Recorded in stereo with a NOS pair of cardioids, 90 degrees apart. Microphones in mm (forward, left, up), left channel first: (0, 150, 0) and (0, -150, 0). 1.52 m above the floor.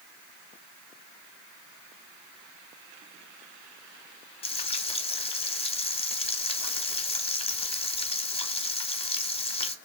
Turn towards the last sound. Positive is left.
turn(degrees=20)